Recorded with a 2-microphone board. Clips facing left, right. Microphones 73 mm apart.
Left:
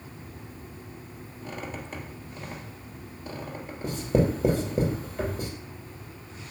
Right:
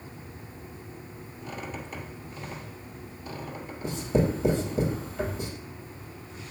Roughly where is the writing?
Left.